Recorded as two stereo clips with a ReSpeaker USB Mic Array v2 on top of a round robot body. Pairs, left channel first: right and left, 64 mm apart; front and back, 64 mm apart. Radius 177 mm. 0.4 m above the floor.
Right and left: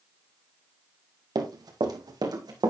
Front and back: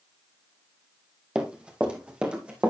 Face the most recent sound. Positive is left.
turn(degrees=105)